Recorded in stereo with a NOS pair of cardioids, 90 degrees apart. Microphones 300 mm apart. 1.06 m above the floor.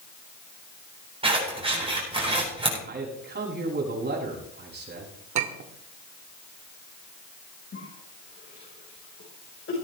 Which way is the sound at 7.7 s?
40° left.